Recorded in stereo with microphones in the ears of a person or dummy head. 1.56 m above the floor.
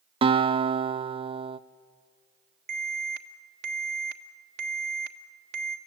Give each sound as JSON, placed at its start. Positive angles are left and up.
{"t": 0.2, "sound": "a guitar", "side_deg": -30, "distance_m": 0.7}
{"t": 2.7, "sound": "an alarm", "side_deg": -60, "distance_m": 1.3}